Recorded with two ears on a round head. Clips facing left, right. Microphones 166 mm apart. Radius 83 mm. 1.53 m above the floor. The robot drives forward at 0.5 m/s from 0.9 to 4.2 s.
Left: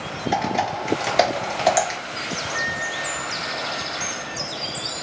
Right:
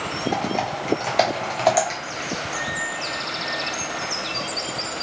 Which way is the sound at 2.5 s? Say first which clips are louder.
Even; 45° right (ahead or behind).